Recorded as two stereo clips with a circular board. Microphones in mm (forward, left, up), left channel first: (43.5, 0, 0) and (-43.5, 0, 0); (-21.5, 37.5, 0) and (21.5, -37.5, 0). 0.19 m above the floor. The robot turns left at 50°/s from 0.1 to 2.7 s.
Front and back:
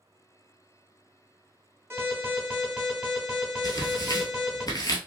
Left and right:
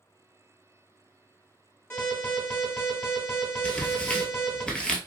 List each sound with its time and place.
1.9 s an alarm: 145° left, 2 m; by 4.6 s 105° left, 2 m
3.6 s tearing paper: 40° left, 0.9 m